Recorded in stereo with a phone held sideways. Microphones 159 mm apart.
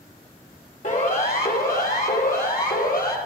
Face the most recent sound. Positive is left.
turn(degrees=75)  # may be behind; listen again after turning